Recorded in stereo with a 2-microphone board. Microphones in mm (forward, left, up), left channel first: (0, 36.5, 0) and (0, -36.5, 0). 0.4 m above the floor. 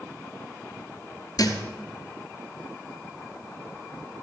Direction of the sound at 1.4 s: 60° left (ahead or behind).